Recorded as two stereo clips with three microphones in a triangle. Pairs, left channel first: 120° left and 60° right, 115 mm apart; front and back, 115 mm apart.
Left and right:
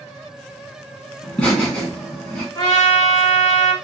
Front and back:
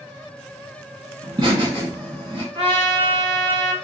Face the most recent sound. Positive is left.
turn(degrees=165)